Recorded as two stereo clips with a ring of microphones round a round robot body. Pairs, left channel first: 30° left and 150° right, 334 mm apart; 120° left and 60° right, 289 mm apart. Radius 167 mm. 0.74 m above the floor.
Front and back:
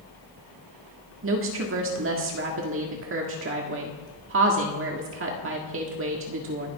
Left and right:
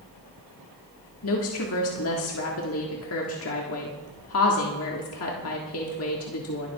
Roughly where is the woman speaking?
Behind.